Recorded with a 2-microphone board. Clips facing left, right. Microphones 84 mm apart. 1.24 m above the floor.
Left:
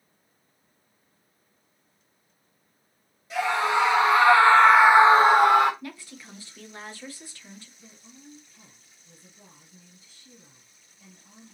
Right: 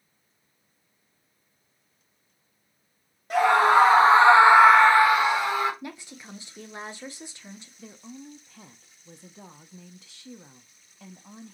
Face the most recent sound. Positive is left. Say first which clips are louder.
# right 8 dB
turn(degrees=-75)  # may be behind; listen again after turning